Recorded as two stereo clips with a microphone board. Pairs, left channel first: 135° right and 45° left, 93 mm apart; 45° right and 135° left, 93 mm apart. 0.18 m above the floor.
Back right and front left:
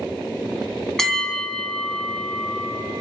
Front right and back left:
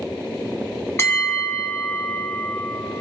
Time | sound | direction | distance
1.0 | a bell | 60° right | 0.8 m